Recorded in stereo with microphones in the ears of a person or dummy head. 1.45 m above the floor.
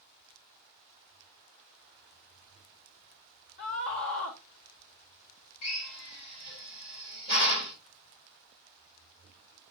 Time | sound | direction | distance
3.6 | a scream | 55° left (ahead or behind) | 1.1 m
5.6 | a drill | 60° left (ahead or behind) | 2.5 m